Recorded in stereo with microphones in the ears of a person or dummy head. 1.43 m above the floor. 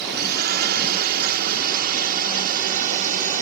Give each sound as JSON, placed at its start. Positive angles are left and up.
{"t": 0.0, "sound": "a drone", "side_deg": -50}